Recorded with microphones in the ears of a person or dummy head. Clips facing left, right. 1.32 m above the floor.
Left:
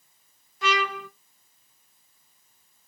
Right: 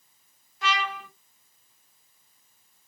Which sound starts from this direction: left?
A trumpet, at 0.6 s.